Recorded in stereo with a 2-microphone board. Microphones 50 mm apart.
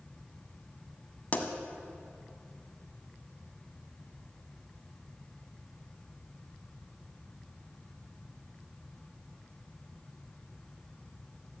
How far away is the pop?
About 0.9 m.